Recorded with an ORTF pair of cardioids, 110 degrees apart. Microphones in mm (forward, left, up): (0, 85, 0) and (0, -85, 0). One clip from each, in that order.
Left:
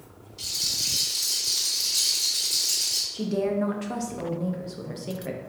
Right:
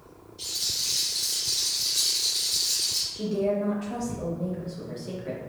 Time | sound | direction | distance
0.4 | a rattle | 60° left | 1.6 m
3.1 | a woman speaking | 35° left | 0.6 m